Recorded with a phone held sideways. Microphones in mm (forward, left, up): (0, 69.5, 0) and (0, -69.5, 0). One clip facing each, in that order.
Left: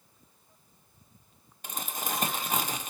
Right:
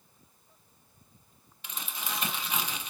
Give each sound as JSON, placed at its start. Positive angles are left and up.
{"t": 1.6, "sound": "crumpling", "side_deg": 45, "distance_m": 0.7}